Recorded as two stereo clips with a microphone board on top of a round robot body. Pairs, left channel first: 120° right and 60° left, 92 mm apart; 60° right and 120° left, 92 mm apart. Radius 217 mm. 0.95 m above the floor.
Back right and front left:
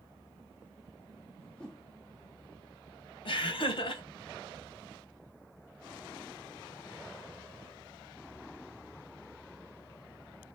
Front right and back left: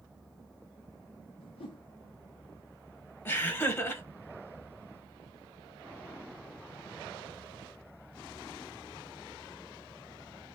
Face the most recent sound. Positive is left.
turn(degrees=-120)